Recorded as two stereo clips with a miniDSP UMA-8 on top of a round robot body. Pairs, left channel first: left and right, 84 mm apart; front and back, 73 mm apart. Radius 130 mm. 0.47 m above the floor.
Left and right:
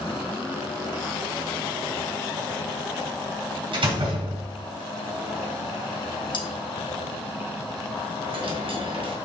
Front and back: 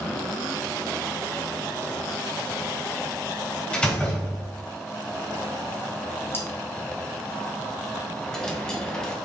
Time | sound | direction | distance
3.7 | a door slam | 75° right | 4 m
6.3 | cutlery clinking | 60° left | 1.8 m
8.2 | a dropped coin | 80° right | 2.0 m